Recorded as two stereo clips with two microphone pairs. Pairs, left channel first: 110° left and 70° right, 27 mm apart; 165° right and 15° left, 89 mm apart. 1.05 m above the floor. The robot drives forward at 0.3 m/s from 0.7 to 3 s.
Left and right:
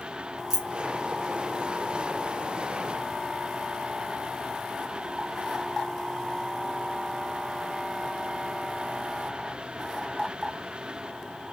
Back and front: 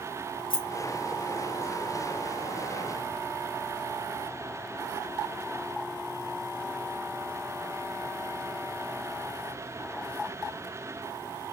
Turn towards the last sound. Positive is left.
turn(degrees=-165)